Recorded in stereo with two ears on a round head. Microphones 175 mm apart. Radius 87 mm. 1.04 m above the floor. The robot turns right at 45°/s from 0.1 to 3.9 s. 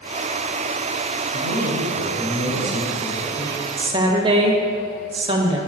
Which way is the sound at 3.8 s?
20° right (ahead or behind).